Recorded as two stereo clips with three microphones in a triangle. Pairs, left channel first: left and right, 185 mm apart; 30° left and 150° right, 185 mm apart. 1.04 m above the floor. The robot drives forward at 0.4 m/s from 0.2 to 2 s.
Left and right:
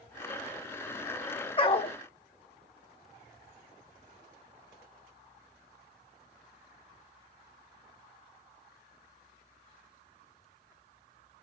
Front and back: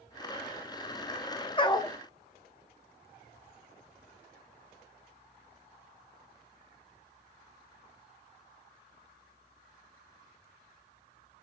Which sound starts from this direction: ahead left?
A dog barking, at 1.6 s.